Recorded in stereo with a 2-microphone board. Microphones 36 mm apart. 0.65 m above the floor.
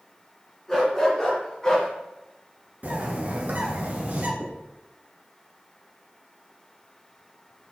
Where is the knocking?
35° right (ahead or behind), 1.1 m.